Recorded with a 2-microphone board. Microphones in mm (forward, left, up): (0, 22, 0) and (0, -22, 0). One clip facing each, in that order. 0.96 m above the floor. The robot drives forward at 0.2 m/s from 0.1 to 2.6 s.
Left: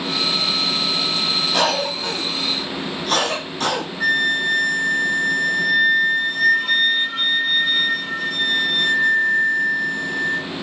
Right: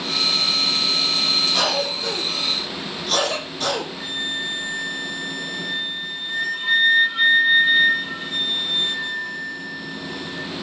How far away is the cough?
About 2.5 m.